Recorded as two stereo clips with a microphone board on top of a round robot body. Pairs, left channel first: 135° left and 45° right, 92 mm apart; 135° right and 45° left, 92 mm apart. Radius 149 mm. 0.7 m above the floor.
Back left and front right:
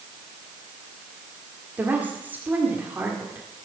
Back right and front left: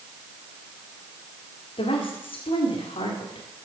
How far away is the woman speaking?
About 2 m.